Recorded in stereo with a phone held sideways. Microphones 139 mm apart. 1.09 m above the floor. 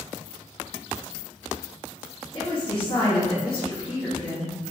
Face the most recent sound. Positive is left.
turn(degrees=20)  # may be behind; listen again after turning